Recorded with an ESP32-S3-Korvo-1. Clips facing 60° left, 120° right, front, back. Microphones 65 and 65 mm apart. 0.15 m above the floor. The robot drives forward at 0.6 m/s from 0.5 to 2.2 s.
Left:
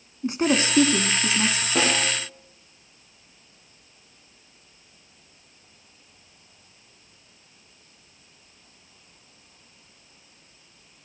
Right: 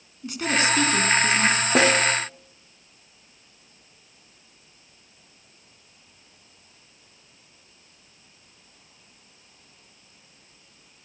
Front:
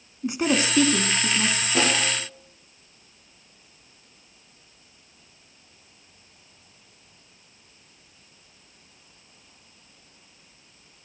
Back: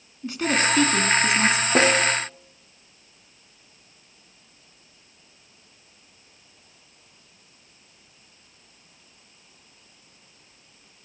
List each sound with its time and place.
0.2 s a woman speaking: 50° left, 1.2 m; by 1.6 s 130° left, 1.2 m
1.8 s a snare drum: 135° right, 6 m; by 2.1 s 140° right, 6 m